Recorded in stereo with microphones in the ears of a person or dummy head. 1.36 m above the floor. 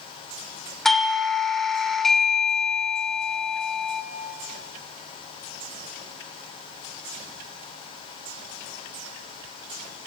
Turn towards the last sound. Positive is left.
turn(degrees=5)  # may be behind; listen again after turning